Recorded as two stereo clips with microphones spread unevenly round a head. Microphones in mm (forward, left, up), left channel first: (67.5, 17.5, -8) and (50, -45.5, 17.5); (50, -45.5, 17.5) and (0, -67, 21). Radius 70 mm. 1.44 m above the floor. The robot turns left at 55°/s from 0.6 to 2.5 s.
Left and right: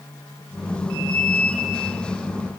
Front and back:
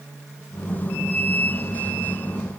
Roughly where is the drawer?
No drawer in this recording.